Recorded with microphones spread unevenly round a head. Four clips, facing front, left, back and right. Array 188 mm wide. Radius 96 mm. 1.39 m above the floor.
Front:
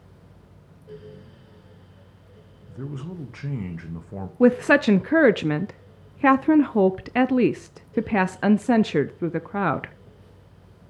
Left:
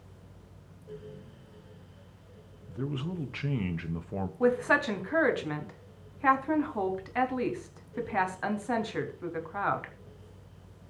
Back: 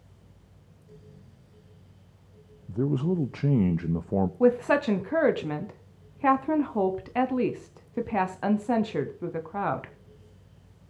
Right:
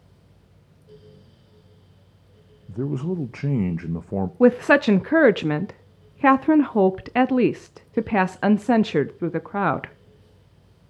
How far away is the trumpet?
No trumpet in this recording.